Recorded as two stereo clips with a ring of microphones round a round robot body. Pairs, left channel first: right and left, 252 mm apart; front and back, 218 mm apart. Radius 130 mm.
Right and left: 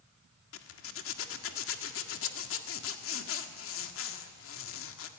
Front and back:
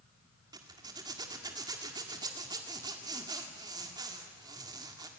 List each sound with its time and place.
0.5 s a zipper: 110° right, 1.7 m